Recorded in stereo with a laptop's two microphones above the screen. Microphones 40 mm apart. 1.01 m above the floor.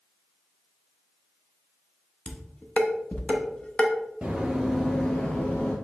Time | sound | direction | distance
2.3 | dishes clattering | 30° left (ahead or behind) | 0.8 m
4.2 | running footsteps | 20° right (ahead or behind) | 1.2 m